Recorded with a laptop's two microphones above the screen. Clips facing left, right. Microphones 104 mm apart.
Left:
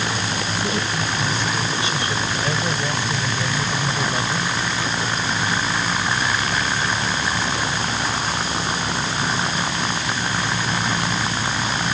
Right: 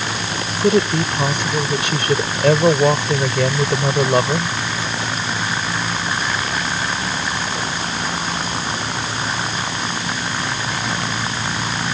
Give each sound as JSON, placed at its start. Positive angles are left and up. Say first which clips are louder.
{"t": 0.6, "sound": "a woman speaking", "louder": "right 13 dB", "side_deg": -70}